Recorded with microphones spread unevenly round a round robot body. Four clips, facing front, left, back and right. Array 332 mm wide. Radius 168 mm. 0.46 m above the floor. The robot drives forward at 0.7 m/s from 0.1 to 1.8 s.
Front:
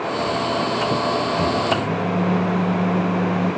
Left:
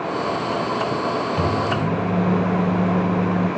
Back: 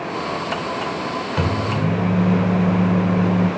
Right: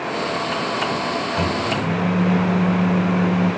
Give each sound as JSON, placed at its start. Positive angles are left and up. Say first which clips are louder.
{"t": 1.4, "sound": "a microwave", "louder": "left 1 dB, front 2 dB", "azimuth_deg": 175, "distance_m": 1.7}